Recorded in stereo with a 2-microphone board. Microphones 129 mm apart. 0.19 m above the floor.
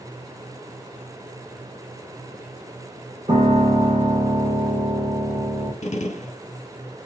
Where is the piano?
60° right (ahead or behind), 3 m.